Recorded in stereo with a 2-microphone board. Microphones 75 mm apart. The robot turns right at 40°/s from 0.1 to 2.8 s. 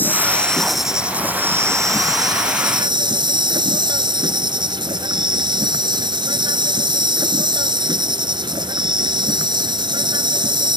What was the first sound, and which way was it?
An insect, 155° left.